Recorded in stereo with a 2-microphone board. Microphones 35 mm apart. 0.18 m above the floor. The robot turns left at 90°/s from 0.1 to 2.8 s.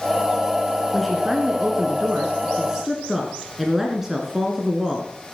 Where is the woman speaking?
5° left, 1.8 m; by 5.1 s 160° right, 1.8 m.